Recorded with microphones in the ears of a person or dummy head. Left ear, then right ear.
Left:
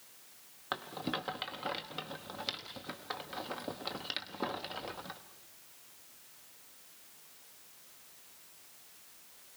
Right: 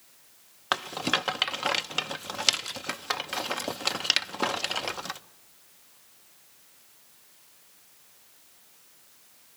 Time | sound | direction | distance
0.7 | a rattle | 55° right (ahead or behind) | 0.6 m